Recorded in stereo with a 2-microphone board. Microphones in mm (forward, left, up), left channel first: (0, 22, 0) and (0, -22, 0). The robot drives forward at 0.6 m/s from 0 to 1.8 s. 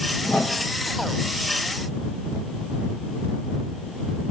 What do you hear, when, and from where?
0.2 s a whoosh: 20° left (ahead or behind), 1.4 m